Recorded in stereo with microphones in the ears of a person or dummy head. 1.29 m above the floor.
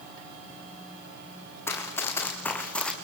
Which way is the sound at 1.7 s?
15° left (ahead or behind).